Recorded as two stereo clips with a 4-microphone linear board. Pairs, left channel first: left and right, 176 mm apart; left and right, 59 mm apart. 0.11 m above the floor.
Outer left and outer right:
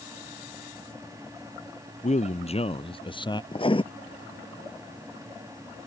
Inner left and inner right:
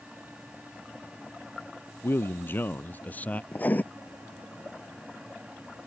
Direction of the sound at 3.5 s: 30° left (ahead or behind).